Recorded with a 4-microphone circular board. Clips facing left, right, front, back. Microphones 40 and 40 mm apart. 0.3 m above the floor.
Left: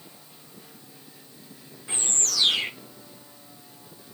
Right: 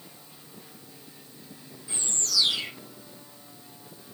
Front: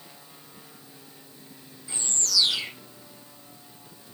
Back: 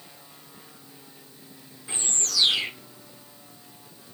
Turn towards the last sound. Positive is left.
turn(degrees=130)